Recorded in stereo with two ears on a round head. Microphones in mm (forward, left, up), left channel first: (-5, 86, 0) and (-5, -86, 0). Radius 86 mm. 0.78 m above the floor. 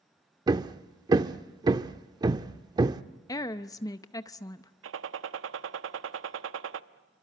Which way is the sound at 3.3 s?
20° left (ahead or behind).